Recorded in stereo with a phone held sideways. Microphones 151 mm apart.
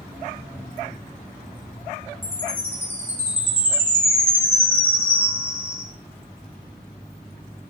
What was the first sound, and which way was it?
A chime, 10° right (ahead or behind).